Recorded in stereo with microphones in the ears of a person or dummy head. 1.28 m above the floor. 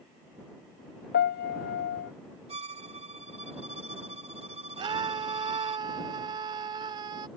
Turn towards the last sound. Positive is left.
turn(degrees=-30)  # may be behind; listen again after turning